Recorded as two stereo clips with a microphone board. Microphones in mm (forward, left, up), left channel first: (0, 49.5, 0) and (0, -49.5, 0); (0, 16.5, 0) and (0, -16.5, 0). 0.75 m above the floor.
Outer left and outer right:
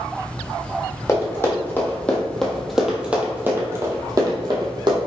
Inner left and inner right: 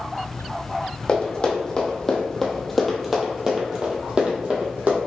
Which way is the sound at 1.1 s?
30° left (ahead or behind).